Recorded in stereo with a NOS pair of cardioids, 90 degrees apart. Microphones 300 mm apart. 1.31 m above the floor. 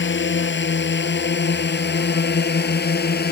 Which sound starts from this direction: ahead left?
A drone, at 0.0 s.